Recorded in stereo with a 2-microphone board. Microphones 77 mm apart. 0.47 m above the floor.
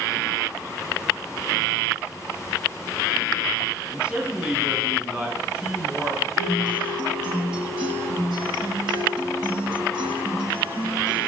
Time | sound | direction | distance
3.9 | a man speaking | 15° right (ahead or behind) | 4 m
6.4 | a guitar | 80° right | 4.5 m